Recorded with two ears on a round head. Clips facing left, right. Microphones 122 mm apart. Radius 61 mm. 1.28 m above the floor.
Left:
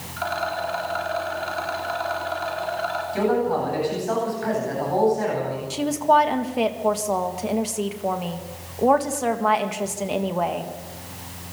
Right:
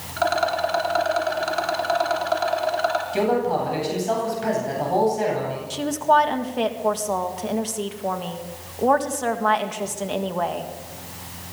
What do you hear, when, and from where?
0.2 s a rattle: 60° right (ahead or behind), 4 m
3.1 s a man speaking: 25° right (ahead or behind), 9.5 m
5.7 s a woman speaking: 5° left (ahead or behind), 1.7 m